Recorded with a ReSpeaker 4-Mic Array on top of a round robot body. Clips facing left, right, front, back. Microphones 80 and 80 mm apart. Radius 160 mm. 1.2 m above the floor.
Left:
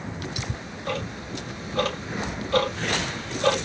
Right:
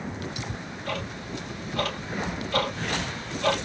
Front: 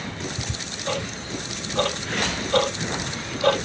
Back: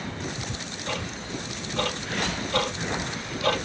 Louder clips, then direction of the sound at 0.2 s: Left 1 dB, front 1 dB; 30° left.